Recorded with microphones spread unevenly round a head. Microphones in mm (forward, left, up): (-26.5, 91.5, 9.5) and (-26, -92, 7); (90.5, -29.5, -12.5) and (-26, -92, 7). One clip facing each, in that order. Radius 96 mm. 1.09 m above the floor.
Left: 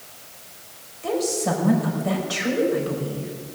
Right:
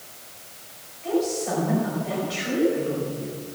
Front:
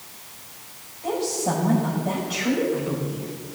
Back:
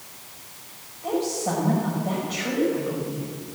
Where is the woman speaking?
115° left, 5 m.